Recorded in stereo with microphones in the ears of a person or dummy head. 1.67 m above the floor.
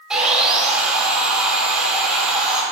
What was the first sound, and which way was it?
Sawing, 5° right (ahead or behind).